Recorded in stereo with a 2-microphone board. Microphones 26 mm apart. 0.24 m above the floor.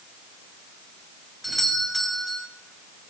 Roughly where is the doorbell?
Centre.